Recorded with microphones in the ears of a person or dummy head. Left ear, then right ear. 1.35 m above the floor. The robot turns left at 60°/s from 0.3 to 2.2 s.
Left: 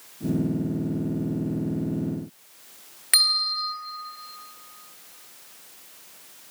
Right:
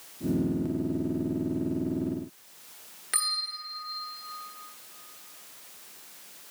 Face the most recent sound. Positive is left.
turn(degrees=20)  # may be behind; listen again after turning